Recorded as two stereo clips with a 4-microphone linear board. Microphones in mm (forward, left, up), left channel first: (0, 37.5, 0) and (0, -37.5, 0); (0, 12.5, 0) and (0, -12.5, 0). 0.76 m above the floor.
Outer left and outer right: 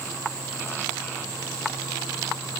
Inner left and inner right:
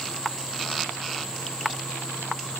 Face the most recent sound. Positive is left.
No sound to turn to.